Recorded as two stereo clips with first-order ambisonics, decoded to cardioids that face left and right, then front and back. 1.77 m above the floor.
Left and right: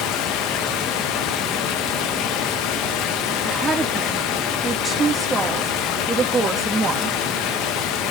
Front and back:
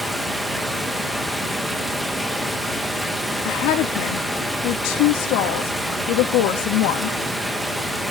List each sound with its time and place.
0.0 s running water: 95° left, 1.4 m
3.5 s a woman speaking: 15° right, 2.5 m